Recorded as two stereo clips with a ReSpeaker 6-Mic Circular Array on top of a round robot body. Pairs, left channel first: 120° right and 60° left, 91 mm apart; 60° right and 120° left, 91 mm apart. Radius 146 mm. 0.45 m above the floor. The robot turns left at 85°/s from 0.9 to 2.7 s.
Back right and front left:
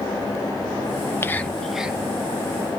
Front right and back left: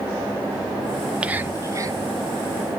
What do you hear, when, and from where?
1.2 s whispering: 170° right, 1.1 m; by 2.0 s 120° left, 1.1 m